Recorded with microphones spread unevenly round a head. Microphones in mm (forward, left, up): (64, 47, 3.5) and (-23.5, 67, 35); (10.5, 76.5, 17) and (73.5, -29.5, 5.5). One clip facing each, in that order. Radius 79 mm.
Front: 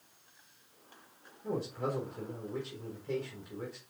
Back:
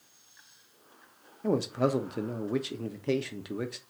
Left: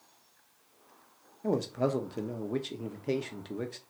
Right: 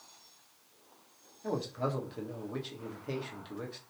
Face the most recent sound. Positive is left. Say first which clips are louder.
# back 8 dB, left 5 dB
turn(degrees=175)